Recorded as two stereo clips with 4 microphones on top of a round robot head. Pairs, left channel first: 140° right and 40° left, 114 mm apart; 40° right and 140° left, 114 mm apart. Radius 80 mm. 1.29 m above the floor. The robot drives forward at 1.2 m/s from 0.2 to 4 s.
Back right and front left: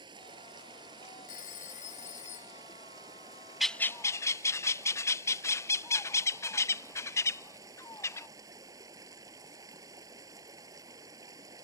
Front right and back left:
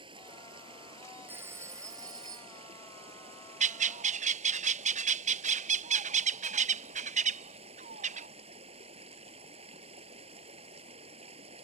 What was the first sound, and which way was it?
Running water, 90° left.